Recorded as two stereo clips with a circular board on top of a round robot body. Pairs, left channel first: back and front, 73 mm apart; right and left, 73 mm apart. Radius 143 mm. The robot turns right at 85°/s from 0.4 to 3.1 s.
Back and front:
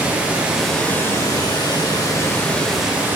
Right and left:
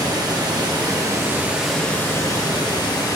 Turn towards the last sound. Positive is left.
turn(degrees=-60)